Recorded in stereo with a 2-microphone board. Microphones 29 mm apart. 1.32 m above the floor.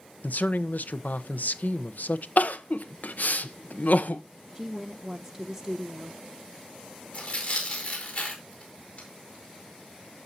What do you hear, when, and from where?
0.2 s a man speaking: 75° left (ahead or behind), 0.9 m
2.4 s crying: 70° left (ahead or behind), 0.8 m
4.5 s a woman speaking: 5° right (ahead or behind), 0.6 m
7.1 s tearing paper: 45° left (ahead or behind), 4.5 m